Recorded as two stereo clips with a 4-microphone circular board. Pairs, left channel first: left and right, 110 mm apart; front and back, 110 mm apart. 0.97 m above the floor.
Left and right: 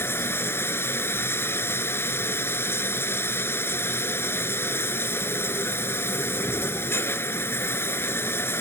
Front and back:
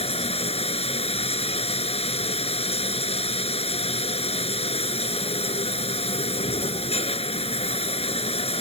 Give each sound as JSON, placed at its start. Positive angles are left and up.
{"t": 0.0, "sound": "running water", "azimuth_deg": 20}